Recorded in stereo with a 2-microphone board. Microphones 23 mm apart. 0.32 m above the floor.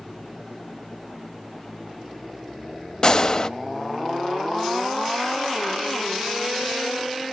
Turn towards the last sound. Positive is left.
turn(degrees=35)  # may be behind; listen again after turning